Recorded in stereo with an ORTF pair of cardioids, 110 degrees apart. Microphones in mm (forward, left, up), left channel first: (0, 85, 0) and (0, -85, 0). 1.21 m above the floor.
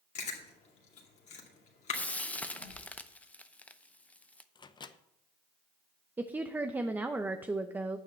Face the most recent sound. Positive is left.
turn(degrees=-10)